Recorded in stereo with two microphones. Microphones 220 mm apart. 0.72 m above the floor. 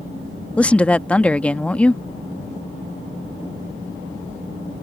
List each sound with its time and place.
0.6 s a woman speaking: 5° left (ahead or behind)